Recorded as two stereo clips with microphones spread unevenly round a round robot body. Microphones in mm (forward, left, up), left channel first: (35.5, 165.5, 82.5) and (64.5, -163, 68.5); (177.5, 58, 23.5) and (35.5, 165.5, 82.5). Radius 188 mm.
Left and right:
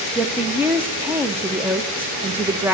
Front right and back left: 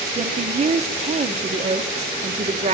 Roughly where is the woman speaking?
Behind.